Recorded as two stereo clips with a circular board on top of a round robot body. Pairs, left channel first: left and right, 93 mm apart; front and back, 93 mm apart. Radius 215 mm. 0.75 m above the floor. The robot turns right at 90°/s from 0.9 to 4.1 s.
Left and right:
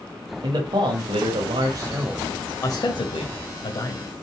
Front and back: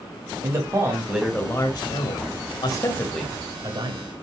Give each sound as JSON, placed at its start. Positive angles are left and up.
{"t": 0.4, "sound": "a man speaking", "azimuth_deg": -120, "distance_m": 1.4}